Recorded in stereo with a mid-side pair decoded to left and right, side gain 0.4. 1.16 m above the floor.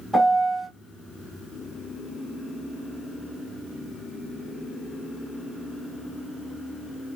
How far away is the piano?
About 3.5 m.